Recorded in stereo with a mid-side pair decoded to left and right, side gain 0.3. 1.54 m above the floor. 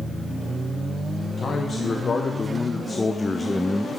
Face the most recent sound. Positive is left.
turn(degrees=-10)